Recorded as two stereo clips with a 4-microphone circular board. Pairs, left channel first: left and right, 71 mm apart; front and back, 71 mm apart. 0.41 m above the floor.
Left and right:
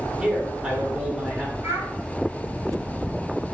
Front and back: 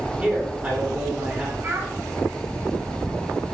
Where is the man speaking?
155° right, 1.1 m.